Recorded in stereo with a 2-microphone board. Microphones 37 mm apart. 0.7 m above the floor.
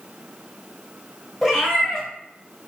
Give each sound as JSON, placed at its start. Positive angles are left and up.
{"t": 1.4, "sound": "a cat meowing", "side_deg": 5, "distance_m": 1.5}